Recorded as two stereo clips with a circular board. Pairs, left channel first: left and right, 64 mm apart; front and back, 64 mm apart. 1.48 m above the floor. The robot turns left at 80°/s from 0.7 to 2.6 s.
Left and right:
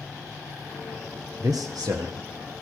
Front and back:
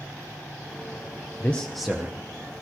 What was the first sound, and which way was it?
A man speaking, 60° right.